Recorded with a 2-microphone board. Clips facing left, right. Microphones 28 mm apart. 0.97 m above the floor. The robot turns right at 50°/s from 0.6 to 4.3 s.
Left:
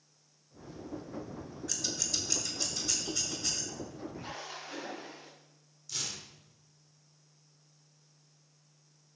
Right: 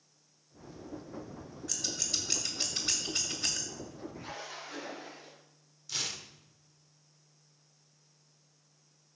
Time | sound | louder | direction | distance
1.7 | scissors | even | 5° right (ahead or behind) | 2 m
4.1 | a splash | even | 20° left (ahead or behind) | 4.5 m
5.9 | tearing paper | right 2 dB | 20° right (ahead or behind) | 1.1 m